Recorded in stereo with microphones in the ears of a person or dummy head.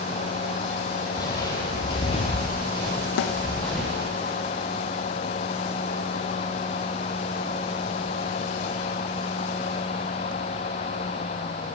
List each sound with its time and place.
1.1 s footsteps: 25° left (ahead or behind), 1.7 m; by 4.0 s centre (ahead or behind), 2 m
3.2 s a snare drum: 70° left (ahead or behind), 0.5 m